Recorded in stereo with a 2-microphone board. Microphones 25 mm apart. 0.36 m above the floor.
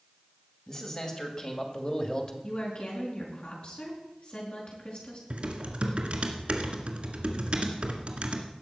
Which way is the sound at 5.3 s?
50° right (ahead or behind).